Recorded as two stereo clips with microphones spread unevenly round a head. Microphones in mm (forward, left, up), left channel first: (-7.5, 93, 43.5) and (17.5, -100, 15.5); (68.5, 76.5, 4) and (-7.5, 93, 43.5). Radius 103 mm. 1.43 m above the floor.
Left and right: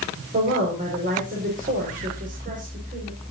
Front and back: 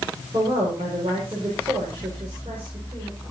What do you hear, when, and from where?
0.3 s a woman speaking: 135° right, 5.5 m